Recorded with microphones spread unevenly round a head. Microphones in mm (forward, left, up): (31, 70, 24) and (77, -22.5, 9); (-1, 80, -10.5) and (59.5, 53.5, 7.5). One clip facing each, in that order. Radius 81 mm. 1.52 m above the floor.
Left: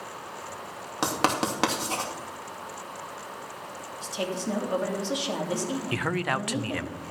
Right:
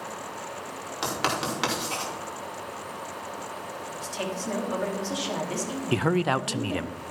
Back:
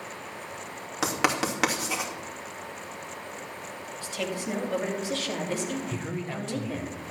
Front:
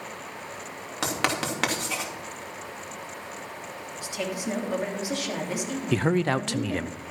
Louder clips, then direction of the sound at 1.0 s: Left 3 dB, back 1 dB; 70° left.